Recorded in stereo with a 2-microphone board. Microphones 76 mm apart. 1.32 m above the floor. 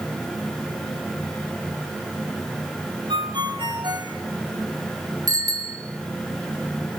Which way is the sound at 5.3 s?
50° right (ahead or behind).